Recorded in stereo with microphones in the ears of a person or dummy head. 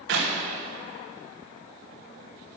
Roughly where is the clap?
Right.